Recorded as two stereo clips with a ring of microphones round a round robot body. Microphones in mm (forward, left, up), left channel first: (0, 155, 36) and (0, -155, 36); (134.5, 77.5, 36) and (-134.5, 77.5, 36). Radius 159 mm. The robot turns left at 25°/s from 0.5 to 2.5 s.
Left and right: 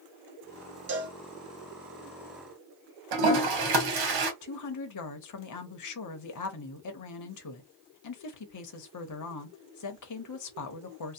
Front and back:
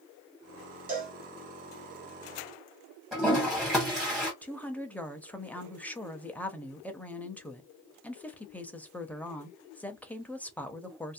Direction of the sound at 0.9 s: 130° right.